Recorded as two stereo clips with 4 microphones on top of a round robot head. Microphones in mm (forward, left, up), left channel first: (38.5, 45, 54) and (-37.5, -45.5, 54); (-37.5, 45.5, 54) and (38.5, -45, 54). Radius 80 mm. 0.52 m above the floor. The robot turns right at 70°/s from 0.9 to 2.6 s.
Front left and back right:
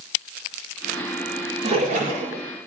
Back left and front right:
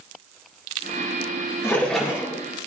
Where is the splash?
165° right, 7 m; by 2.4 s 110° right, 7 m.